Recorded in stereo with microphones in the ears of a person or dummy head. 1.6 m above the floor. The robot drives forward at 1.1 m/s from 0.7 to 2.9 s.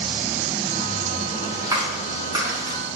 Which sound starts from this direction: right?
A clap, at 1.6 s.